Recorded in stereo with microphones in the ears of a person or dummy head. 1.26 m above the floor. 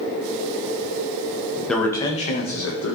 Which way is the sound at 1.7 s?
5° left (ahead or behind).